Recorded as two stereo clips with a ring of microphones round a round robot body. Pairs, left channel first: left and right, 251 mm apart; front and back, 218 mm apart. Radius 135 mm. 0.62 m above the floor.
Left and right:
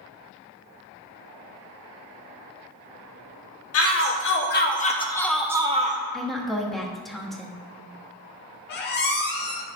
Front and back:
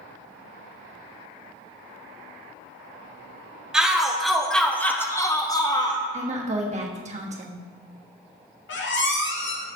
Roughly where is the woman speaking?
Behind.